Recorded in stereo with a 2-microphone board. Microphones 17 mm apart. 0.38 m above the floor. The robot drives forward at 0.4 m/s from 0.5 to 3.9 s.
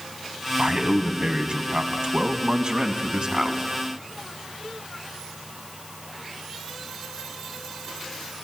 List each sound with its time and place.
0.6 s a man speaking: 65° right (ahead or behind), 2 m; by 3.6 s 50° right (ahead or behind), 2.5 m